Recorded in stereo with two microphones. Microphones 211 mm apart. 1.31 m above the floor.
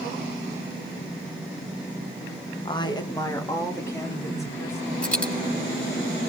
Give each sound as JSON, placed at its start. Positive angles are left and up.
{"t": 2.6, "sound": "a woman speaking", "side_deg": 25, "distance_m": 0.7}
{"t": 5.0, "sound": "a dropped coin", "side_deg": 5, "distance_m": 3.0}